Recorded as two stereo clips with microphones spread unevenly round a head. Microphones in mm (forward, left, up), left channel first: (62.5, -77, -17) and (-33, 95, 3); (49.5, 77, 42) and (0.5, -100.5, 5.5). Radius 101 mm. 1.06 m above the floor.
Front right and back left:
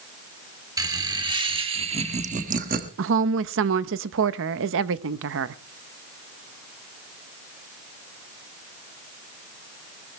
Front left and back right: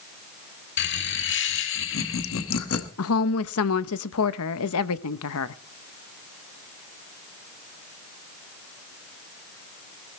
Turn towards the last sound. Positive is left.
turn(degrees=95)